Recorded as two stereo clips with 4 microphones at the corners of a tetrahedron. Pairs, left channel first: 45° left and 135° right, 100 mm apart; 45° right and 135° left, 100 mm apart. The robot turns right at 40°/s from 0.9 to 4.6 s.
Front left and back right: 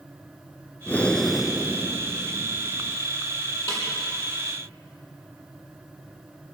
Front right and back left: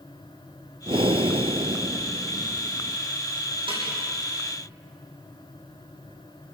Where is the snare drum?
105° left, 7.5 m; by 3.8 s 110° left, 7.5 m.